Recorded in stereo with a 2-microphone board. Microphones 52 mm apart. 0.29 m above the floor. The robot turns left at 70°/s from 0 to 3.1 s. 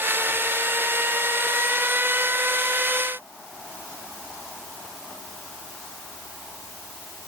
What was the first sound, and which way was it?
Only background noise.